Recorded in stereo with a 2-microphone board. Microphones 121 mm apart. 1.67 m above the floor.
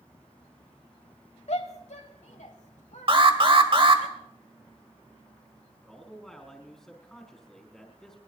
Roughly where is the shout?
Left.